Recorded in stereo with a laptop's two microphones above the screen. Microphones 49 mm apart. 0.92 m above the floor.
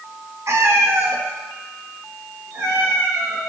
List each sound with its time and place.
0.5 s a cat meowing: 65° right (ahead or behind), 0.8 m; by 3.4 s 85° right, 2.5 m